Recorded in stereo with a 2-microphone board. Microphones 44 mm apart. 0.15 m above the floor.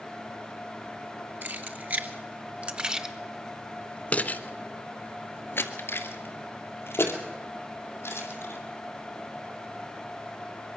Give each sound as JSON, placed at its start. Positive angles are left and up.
{"t": 1.4, "sound": "keys jangling", "side_deg": -50, "distance_m": 1.9}